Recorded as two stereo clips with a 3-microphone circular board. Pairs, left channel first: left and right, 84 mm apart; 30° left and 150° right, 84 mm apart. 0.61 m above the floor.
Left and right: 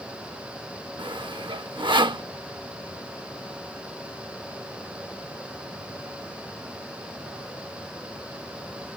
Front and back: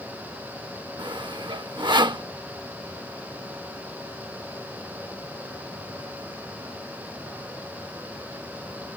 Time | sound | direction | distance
1.0 | sawing | 120° right | ?